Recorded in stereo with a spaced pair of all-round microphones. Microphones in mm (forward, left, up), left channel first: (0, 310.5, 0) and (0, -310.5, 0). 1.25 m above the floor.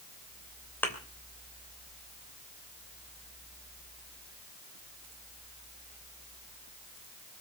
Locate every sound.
0.8 s a thud: 5° left (ahead or behind), 3 m